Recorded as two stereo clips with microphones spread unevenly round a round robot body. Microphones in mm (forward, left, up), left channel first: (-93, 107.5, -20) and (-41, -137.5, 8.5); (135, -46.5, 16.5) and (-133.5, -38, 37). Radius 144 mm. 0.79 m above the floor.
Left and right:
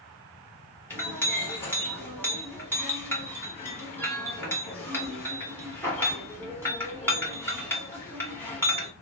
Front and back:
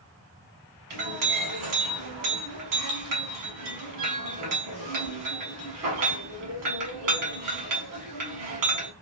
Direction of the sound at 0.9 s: 175° right.